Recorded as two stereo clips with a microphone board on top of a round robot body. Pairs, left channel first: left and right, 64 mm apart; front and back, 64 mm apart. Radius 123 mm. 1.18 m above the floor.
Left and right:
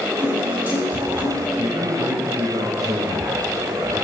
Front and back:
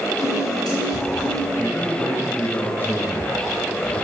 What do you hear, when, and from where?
0.2 s a piano: 25° right, 7.5 m
1.6 s a man speaking: 65° right, 2 m